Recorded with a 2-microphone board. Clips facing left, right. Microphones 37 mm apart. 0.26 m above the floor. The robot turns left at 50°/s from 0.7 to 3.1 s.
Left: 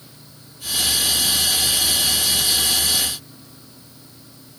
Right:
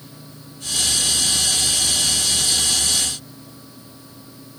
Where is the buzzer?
I don't hear a buzzer.